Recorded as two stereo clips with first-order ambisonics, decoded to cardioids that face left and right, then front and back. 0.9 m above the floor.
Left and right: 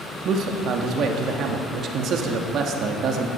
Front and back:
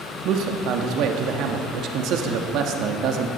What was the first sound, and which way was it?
A man speaking, 140° right.